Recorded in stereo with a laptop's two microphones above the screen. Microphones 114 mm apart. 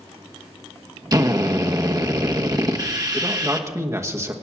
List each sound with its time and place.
1.1 s a drill: 35° right (ahead or behind), 1.1 m
3.1 s a man speaking: 25° right (ahead or behind), 1.3 m